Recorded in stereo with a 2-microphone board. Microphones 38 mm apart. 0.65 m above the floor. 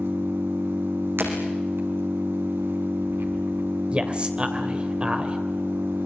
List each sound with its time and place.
0.0 s an engine running: 85° right, 4.5 m
1.2 s breaking glass: 75° right (ahead or behind), 5.5 m
3.9 s a man speaking: 30° right (ahead or behind), 2.5 m